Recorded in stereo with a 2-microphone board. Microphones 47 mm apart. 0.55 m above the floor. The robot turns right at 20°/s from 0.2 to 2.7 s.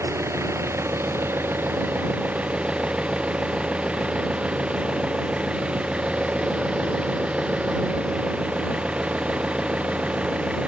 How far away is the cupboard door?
No cupboard door in this recording.